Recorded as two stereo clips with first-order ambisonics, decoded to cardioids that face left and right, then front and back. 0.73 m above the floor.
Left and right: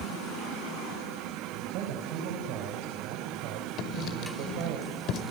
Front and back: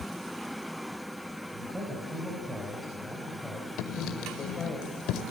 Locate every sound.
1.5 s a man speaking: 105° right, 4.5 m; by 4.8 s 75° right, 3.5 m
3.8 s writing: 40° left, 1.7 m